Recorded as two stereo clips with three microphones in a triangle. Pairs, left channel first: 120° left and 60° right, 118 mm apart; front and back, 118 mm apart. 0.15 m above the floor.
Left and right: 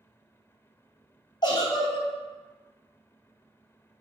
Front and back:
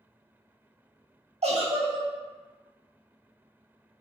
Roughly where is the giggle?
Behind.